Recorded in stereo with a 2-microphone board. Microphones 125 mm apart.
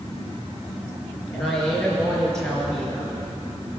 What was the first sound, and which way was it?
A woman speaking, 5° left (ahead or behind).